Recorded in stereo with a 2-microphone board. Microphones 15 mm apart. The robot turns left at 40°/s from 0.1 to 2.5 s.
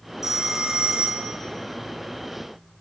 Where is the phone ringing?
30° right, 1.0 m; by 1.4 s 75° right, 1.0 m.